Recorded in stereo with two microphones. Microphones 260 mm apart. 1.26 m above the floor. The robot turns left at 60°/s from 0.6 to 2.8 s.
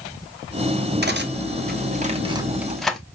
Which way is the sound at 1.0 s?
40° right (ahead or behind).